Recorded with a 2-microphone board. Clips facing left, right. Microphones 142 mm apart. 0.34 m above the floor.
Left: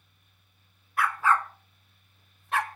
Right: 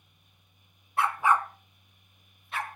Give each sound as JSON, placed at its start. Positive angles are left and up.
{"t": 1.0, "sound": "a dog barking", "side_deg": -30, "distance_m": 1.2}